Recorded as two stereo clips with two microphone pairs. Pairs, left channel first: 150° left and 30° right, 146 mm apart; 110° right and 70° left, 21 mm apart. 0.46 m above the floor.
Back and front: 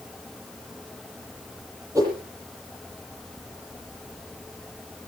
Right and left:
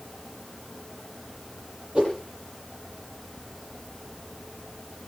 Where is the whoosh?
40° left, 8.5 m.